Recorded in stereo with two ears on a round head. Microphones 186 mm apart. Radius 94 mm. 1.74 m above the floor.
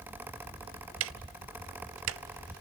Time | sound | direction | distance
1.0 | ticking | 65° right (ahead or behind) | 0.6 m